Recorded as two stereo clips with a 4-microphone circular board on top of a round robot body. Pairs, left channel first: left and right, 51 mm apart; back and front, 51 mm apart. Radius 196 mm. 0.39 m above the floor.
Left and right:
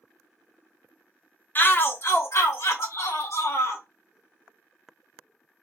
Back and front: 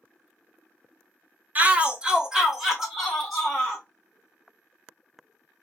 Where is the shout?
50° left, 1.1 m; by 3.8 s 95° left, 2 m.